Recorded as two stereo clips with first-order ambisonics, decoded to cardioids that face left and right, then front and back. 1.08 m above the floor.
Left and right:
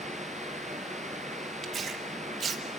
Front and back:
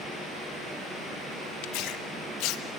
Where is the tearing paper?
25° right, 1.2 m.